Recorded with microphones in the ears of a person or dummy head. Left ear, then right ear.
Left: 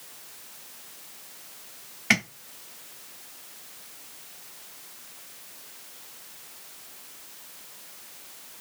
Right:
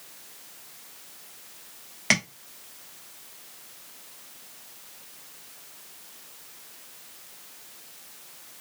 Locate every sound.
2.1 s tapping: 20° right (ahead or behind), 1.1 m